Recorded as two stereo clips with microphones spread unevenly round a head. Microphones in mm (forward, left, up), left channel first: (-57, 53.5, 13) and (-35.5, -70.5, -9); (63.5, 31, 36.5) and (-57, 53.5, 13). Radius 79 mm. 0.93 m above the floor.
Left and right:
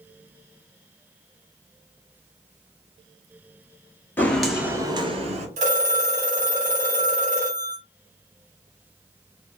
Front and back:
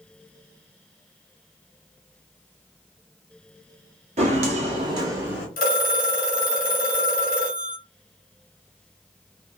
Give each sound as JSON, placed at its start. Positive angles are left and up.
{"t": 4.2, "sound": "footsteps", "azimuth_deg": 155, "distance_m": 1.2}
{"t": 5.6, "sound": "a phone ringing", "azimuth_deg": -30, "distance_m": 1.4}